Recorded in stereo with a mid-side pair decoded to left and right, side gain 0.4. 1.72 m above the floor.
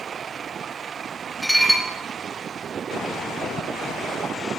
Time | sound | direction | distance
1.4 | dishes clattering | 5° right | 2.5 m